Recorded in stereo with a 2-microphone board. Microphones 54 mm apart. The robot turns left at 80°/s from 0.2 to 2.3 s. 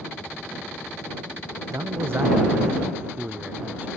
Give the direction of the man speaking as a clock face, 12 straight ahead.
3 o'clock.